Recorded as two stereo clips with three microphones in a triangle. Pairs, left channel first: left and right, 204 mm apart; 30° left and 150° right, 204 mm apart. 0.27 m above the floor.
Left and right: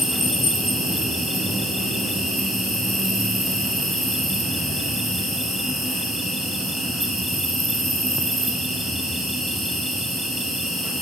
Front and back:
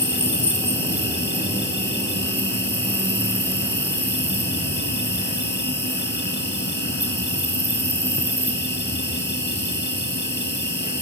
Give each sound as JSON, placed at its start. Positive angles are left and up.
{"t": 0.0, "sound": "an insect", "azimuth_deg": 0, "distance_m": 6.0}